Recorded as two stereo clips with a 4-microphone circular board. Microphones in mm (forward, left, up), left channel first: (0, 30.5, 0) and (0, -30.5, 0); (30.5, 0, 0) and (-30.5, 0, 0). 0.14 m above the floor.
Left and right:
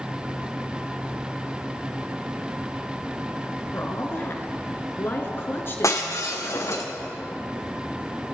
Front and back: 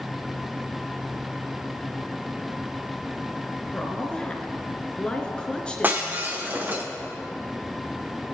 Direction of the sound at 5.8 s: 120° left.